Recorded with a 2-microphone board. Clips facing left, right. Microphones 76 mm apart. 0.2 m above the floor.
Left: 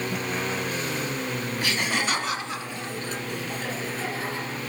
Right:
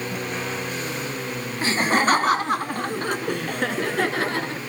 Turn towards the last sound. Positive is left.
turn(degrees=-70)  # may be behind; listen again after turning